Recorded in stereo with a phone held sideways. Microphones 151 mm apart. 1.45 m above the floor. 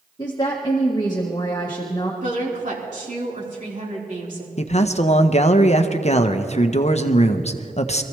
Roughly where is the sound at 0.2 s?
Left.